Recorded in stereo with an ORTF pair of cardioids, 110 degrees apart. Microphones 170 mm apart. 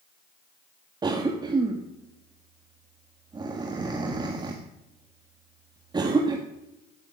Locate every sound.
1.0 s a cough: 25° right, 1.5 m